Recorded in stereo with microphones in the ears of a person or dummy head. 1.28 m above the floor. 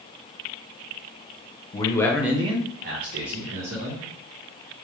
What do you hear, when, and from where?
1.7 s a man speaking: 25° left (ahead or behind), 0.9 m; by 4.0 s 80° right, 2 m